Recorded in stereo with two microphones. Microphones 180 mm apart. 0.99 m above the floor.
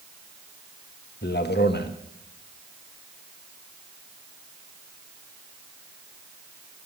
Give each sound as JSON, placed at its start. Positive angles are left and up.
{"t": 1.2, "sound": "a man speaking", "side_deg": 70, "distance_m": 1.2}